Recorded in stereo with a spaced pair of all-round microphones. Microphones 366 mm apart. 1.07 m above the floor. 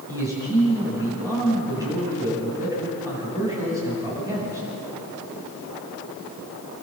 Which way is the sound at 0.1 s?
10° right (ahead or behind).